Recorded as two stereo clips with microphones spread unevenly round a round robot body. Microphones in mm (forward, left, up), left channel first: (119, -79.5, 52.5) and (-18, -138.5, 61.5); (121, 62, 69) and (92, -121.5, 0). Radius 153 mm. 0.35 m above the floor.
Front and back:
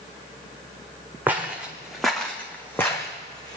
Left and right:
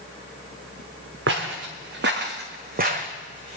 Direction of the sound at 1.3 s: 80° right.